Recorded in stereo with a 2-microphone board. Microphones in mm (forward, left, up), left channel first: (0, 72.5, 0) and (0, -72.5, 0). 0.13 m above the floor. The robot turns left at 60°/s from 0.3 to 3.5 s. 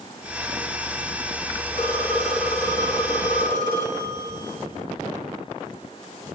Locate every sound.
1.7 s a phone ringing: 35° left, 4 m; by 4.6 s 75° right, 4 m